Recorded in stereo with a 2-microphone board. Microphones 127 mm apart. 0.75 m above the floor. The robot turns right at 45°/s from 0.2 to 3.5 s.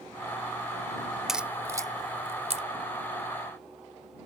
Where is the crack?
5° right (ahead or behind); by 2.6 s 60° right (ahead or behind).